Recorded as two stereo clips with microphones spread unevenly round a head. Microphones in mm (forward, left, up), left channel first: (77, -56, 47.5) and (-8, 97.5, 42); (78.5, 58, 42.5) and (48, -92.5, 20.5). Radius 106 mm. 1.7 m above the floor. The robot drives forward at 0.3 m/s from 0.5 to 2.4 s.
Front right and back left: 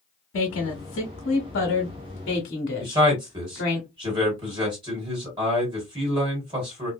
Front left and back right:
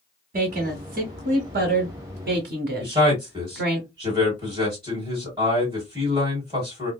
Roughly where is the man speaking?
Behind.